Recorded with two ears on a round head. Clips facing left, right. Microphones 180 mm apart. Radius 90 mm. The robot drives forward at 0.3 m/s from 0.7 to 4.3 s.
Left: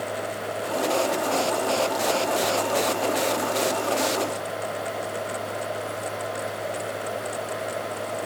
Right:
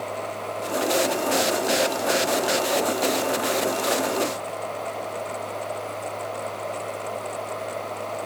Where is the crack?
I don't hear a crack.